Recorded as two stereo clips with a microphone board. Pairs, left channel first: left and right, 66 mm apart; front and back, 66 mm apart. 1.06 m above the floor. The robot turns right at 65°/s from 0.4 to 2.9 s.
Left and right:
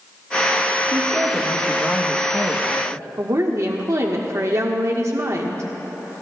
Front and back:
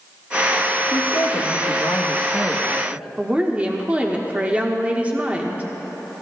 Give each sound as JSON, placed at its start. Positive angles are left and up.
{"t": 0.9, "sound": "a woman speaking", "azimuth_deg": -30, "distance_m": 1.0}
{"t": 3.2, "sound": "a woman speaking", "azimuth_deg": -115, "distance_m": 1.1}